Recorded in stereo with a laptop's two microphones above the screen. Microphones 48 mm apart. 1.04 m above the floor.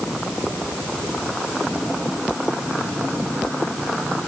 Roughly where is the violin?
I don't hear a violin.